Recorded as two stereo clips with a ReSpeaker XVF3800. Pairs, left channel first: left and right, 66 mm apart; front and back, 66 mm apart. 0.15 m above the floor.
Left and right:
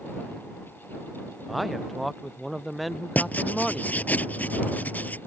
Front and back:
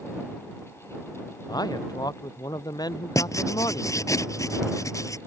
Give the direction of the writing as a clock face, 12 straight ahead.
11 o'clock.